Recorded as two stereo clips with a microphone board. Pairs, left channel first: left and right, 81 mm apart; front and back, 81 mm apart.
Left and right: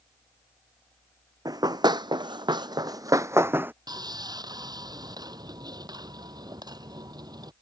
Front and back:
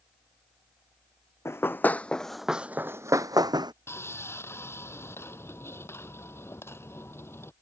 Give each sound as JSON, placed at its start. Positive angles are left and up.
{"t": 1.4, "sound": "running footsteps", "azimuth_deg": -55}
{"t": 3.9, "sound": "sawing", "azimuth_deg": -60}